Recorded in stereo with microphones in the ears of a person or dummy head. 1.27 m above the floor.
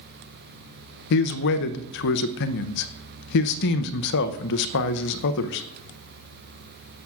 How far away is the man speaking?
About 0.6 m.